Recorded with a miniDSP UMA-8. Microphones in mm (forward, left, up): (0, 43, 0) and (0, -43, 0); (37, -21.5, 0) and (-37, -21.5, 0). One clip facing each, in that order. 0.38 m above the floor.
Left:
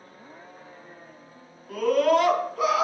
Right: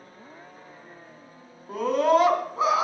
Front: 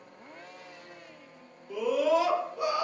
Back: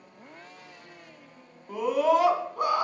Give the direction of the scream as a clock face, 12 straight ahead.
5 o'clock.